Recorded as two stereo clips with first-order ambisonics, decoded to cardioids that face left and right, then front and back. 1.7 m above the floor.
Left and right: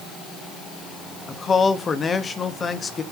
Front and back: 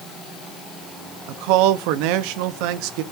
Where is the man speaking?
160° left, 1.1 m.